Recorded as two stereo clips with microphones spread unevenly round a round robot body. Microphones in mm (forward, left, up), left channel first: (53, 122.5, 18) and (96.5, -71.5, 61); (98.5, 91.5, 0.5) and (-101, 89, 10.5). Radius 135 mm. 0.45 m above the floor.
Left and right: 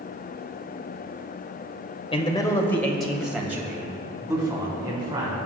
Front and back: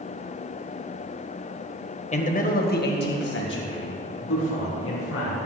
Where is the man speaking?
50° left, 2 m; by 5.4 s 10° right, 5 m.